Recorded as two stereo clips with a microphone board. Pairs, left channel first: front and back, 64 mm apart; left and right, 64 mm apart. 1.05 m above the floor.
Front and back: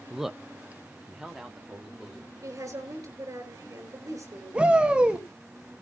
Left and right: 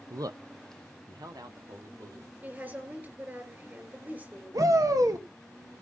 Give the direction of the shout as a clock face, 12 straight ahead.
4 o'clock.